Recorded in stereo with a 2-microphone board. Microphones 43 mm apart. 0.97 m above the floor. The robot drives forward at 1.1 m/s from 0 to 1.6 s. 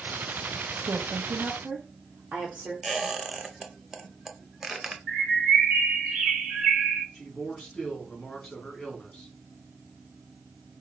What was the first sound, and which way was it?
A woman speaking, 55° right (ahead or behind).